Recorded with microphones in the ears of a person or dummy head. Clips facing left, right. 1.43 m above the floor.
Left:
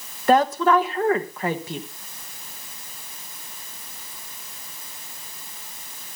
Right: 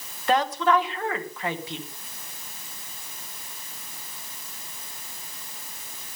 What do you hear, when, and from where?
0.3 s a woman speaking: 40° left (ahead or behind), 1.4 m